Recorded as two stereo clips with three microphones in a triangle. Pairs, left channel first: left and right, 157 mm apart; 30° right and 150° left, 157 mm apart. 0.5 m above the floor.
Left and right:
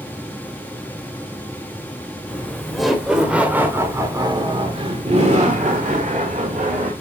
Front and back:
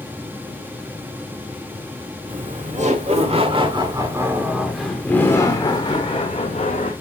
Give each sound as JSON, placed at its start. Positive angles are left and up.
{"t": 2.3, "sound": "laughter", "azimuth_deg": 175, "distance_m": 2.5}